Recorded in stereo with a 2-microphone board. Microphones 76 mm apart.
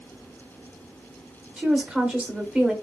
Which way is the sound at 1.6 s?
10° right (ahead or behind).